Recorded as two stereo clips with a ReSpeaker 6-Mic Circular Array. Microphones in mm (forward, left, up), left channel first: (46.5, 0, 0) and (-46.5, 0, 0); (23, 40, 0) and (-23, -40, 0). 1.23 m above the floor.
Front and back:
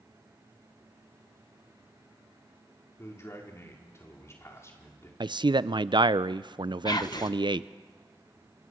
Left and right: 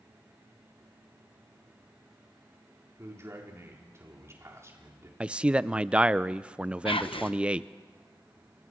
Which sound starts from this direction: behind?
A man speaking, at 5.2 s.